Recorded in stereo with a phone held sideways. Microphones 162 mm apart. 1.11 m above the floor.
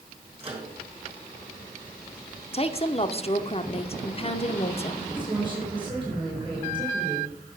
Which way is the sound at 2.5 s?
40° left (ahead or behind).